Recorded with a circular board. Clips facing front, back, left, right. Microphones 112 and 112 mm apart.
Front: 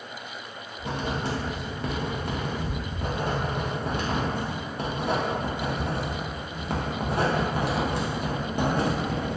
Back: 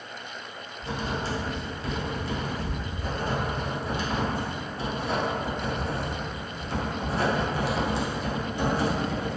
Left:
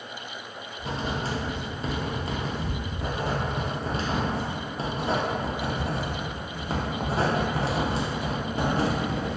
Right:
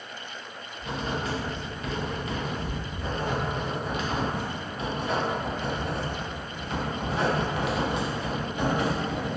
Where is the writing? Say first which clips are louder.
Front 1 dB, even; 35° left, 0.5 m.